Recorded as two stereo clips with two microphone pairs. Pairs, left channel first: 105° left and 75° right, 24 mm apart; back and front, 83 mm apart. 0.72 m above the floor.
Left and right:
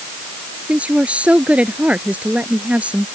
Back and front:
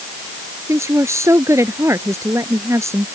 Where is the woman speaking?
55° right.